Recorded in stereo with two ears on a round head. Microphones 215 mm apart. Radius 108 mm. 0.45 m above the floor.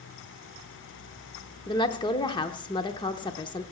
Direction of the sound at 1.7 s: 20° left (ahead or behind).